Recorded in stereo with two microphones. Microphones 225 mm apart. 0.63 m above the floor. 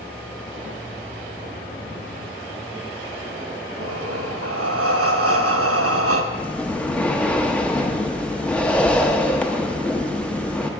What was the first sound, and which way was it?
Breathing, 85° right.